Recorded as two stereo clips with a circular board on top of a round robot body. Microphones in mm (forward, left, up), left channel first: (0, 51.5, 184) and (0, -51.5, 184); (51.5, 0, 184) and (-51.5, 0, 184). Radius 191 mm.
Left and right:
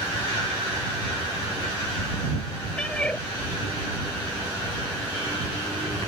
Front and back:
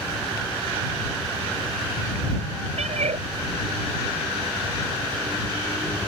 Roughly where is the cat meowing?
Behind.